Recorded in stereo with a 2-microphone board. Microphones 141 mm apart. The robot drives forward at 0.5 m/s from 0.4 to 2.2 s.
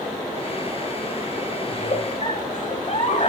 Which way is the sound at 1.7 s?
55° left (ahead or behind).